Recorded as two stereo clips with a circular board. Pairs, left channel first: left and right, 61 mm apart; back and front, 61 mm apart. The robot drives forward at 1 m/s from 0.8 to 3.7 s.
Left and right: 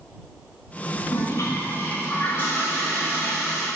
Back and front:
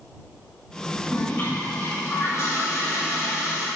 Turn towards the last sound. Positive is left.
turn(degrees=155)